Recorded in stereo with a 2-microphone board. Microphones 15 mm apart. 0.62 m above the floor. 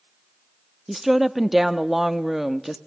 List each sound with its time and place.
0.9 s a woman speaking: 10° right (ahead or behind), 0.7 m